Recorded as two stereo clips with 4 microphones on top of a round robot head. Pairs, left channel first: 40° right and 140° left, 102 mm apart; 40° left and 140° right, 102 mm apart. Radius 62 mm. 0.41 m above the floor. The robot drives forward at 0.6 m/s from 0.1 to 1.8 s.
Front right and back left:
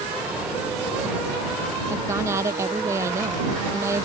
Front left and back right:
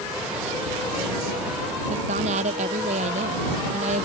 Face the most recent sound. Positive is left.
turn(degrees=-155)